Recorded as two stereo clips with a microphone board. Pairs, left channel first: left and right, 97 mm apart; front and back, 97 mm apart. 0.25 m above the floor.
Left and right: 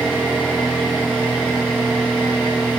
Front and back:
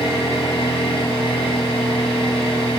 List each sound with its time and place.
0.0 s an engine running: 10° right, 3 m